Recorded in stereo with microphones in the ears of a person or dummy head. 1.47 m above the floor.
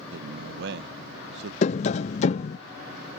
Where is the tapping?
40° left (ahead or behind).